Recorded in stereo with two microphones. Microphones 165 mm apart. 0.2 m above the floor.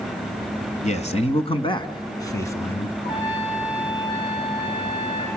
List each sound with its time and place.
0.8 s a man speaking: 45° left (ahead or behind), 1.6 m; by 2.9 s 10° left (ahead or behind), 1.7 m
3.0 s a trumpet: 35° left (ahead or behind), 8.5 m